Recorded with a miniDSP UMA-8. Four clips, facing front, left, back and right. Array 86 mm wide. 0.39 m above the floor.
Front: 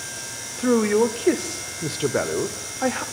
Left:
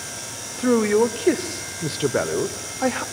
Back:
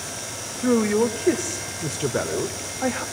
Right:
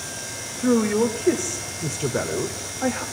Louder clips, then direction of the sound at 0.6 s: Left 2 dB, front 1 dB; 60° left.